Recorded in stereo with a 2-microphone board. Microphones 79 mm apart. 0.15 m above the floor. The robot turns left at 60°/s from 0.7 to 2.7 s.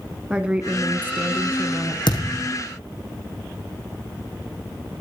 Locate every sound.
0.3 s a woman speaking: 15° right (ahead or behind), 1.2 m; by 2.0 s 30° right (ahead or behind), 1.2 m
2.1 s a thud: 70° left (ahead or behind), 4 m; by 2.5 s 45° left (ahead or behind), 4 m